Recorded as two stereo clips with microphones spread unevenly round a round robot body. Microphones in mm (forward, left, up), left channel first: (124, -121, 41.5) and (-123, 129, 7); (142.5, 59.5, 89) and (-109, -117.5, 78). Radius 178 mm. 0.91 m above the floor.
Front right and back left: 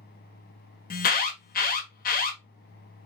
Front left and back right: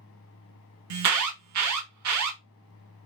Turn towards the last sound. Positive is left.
turn(degrees=-115)